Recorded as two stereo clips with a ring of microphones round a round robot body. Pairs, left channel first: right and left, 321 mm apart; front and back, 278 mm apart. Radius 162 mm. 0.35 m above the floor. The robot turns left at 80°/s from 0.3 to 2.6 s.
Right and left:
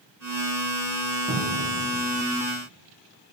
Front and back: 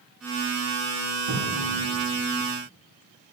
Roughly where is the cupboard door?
Behind.